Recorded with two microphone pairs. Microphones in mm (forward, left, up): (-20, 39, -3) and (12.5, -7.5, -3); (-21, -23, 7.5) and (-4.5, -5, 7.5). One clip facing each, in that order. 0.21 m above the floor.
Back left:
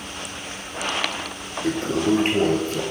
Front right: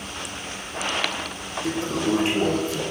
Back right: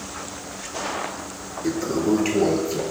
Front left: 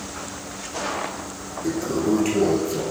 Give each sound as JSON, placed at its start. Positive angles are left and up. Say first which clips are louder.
{"t": 1.6, "sound": "a toilet flushing", "louder": "back left 3 dB, back right 1 dB", "azimuth_deg": 165, "distance_m": 1.3}